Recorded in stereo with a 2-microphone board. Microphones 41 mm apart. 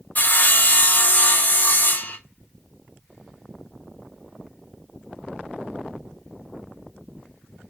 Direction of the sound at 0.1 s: 45° left (ahead or behind).